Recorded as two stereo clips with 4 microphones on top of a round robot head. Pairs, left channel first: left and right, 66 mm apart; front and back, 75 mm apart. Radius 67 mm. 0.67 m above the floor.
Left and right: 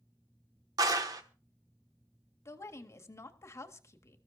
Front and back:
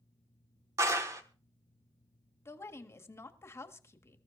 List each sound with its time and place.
0.8 s a clap: 125° right, 1.1 m
2.5 s a woman speaking: 50° left, 1.7 m